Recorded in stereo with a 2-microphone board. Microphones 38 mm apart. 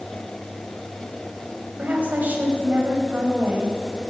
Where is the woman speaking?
55° right (ahead or behind), 3 m.